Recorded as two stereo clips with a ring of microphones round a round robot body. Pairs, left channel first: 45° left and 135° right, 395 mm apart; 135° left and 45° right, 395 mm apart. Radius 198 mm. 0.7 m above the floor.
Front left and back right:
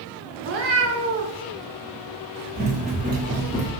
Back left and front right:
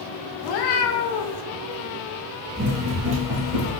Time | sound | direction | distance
0.4 | a cat meowing | 165° left | 0.5 m
2.5 | running footsteps | 95° right | 0.8 m